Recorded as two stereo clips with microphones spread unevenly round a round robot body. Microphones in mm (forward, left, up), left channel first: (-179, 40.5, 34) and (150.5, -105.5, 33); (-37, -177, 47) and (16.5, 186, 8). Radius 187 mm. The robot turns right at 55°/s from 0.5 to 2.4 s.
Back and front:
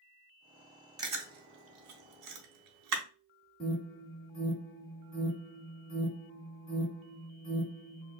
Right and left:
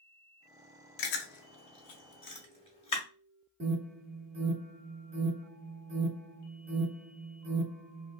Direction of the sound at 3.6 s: 100° left.